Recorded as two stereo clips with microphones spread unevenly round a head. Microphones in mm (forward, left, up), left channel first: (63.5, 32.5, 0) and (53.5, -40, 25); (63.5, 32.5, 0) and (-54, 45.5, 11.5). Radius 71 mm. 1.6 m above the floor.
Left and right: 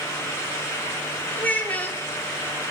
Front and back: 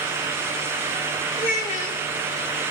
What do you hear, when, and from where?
1.4 s a child speaking: 5° left, 2 m